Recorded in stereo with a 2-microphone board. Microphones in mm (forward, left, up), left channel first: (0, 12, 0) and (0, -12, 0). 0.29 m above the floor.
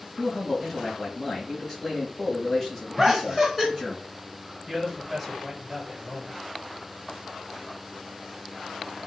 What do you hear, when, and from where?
0.2 s a man speaking: 25° left (ahead or behind), 2.5 m
3.0 s laughter: 10° left (ahead or behind), 1.3 m
4.7 s a man speaking: 15° left (ahead or behind), 1.8 m